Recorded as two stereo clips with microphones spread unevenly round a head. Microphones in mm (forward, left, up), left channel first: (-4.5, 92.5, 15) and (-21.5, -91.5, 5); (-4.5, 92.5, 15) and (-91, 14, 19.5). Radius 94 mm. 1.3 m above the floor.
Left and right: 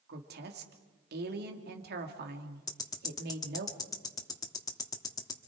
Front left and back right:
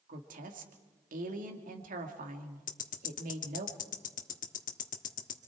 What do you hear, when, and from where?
0.1 s a woman speaking: 130° right, 2.5 m
2.7 s ticking: 15° left, 1.4 m